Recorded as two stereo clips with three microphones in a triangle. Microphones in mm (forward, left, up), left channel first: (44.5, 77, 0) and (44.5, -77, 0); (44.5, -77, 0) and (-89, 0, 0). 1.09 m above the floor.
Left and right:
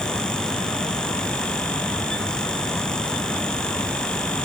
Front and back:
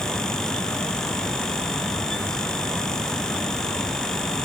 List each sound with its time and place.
Only background noise.